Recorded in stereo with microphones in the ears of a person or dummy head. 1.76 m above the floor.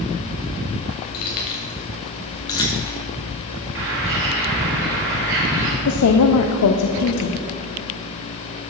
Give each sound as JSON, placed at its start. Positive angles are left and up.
{"t": 1.1, "sound": "keys jangling", "side_deg": 45, "distance_m": 1.3}
{"t": 3.8, "sound": "a bird", "side_deg": -65, "distance_m": 3.0}
{"t": 5.8, "sound": "a woman speaking", "side_deg": 85, "distance_m": 0.6}